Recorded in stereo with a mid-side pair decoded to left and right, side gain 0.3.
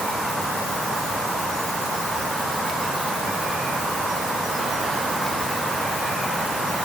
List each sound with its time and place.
Only background noise.